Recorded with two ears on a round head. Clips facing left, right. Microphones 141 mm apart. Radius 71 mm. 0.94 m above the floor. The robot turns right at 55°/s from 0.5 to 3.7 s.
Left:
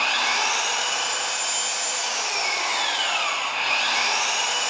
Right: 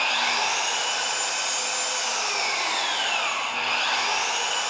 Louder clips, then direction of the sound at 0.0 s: Left 1 dB; 165° right.